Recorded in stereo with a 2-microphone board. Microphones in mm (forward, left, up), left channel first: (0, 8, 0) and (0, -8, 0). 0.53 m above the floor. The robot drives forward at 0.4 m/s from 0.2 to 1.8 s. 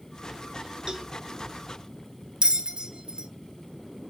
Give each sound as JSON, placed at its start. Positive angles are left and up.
{"t": 0.9, "sound": "a cowbell", "side_deg": -40, "distance_m": 1.2}
{"t": 2.4, "sound": "a bell", "side_deg": -65, "distance_m": 0.7}